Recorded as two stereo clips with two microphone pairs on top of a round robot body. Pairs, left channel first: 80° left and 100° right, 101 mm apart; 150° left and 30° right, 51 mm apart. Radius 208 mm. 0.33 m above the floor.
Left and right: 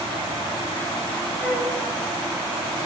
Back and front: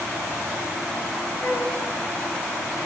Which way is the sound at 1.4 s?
170° left.